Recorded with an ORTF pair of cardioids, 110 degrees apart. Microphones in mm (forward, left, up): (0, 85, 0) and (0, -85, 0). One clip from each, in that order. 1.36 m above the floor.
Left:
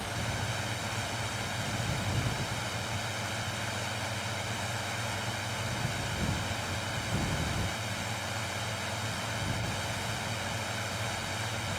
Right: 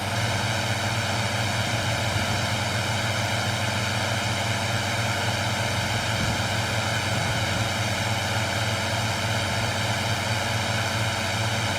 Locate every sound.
0.0 s a drone: 60° right